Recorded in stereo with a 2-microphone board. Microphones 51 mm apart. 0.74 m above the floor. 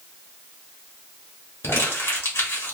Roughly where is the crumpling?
Left.